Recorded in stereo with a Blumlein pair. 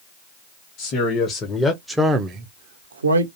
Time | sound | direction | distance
0.8 | a man speaking | 30° left | 1.0 m